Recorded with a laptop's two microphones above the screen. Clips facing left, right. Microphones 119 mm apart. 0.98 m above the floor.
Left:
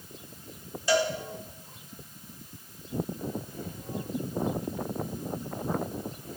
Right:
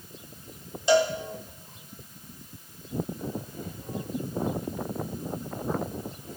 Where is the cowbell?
25° right (ahead or behind), 1.3 m.